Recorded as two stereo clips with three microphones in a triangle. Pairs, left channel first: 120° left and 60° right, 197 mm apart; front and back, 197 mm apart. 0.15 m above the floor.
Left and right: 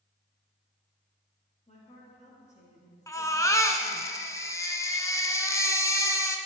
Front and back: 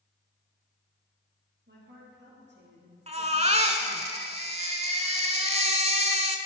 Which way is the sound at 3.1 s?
Straight behind.